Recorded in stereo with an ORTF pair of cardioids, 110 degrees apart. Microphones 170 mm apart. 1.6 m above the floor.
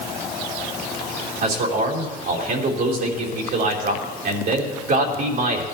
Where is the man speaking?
65° right, 3.5 m.